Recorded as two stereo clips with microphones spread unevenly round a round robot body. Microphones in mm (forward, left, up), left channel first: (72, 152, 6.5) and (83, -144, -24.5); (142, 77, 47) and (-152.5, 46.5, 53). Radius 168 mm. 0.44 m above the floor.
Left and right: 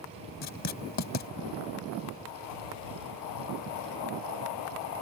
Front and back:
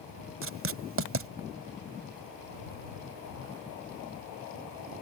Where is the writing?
140° left.